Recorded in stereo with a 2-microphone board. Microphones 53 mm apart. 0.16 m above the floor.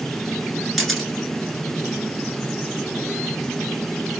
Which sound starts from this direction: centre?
A camera shutter, at 0.8 s.